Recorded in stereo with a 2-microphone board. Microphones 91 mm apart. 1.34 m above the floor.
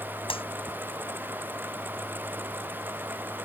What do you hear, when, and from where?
0.3 s a clap: 80° left